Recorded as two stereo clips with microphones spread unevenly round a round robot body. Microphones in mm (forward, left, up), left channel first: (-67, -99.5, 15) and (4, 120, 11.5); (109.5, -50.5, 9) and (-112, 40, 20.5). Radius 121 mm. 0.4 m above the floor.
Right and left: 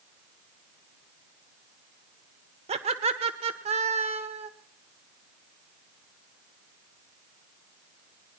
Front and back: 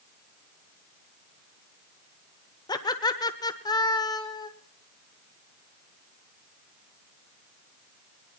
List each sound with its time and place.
2.7 s laughter: 35° left, 0.9 m